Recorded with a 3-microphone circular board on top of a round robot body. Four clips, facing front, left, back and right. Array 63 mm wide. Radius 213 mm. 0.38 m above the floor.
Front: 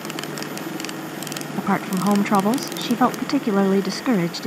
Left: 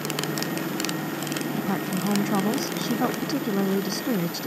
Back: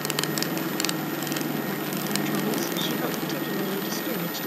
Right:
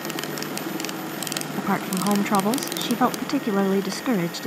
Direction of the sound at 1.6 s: 25° right.